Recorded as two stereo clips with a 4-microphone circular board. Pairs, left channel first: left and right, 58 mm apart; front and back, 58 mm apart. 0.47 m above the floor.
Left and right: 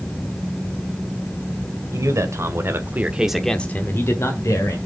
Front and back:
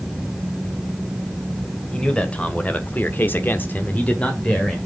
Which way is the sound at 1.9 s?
70° right.